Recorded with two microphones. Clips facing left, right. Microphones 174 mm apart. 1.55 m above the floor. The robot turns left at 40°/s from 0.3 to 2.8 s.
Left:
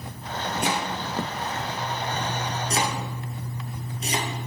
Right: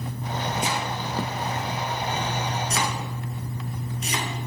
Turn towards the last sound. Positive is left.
turn(degrees=30)  # may be behind; listen again after turning